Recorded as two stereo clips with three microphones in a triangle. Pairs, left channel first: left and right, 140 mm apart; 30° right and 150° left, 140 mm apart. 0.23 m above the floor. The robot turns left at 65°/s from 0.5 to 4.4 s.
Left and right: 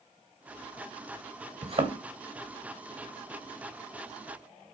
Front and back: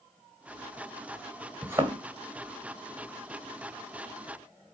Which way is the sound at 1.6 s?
125° right.